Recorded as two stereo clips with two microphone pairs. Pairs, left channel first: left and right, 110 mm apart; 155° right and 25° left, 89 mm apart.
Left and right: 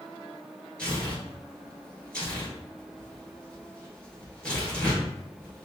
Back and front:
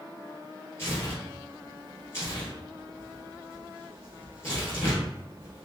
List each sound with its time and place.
0.8 s tearing paper: 165° left, 1.5 m